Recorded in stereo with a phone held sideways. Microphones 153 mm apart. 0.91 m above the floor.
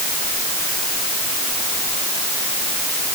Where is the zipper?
I don't hear a zipper.